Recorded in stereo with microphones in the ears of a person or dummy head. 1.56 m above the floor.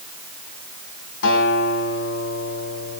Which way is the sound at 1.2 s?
75° left (ahead or behind).